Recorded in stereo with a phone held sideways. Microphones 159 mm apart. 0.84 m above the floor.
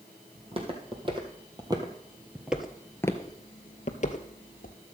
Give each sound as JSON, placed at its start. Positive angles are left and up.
{"t": 0.3, "sound": "footsteps", "side_deg": -40, "distance_m": 2.5}